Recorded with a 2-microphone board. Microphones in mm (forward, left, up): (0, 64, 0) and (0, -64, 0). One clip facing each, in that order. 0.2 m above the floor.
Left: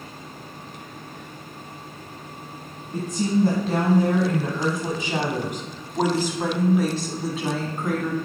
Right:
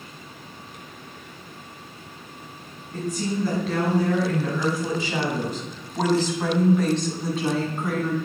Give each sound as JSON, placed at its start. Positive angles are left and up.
{"t": 2.9, "sound": "a woman speaking", "side_deg": 25, "distance_m": 2.0}